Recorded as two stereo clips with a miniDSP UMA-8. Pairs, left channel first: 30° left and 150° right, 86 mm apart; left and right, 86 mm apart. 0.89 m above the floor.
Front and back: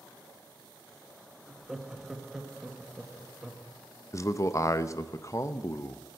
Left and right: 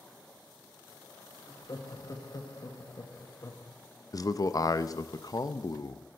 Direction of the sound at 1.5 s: 125° left.